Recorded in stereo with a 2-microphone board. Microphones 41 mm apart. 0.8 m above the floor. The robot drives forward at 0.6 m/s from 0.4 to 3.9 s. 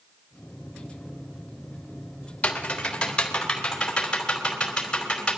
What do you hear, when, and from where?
2.4 s typing on a keyboard: 30° left (ahead or behind), 1.9 m; by 5.4 s 20° left (ahead or behind), 2.5 m